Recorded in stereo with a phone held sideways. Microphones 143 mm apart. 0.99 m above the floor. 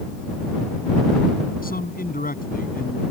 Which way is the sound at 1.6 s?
85° left.